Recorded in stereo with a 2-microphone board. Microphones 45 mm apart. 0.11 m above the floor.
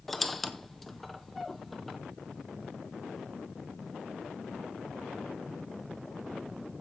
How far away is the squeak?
About 0.7 m.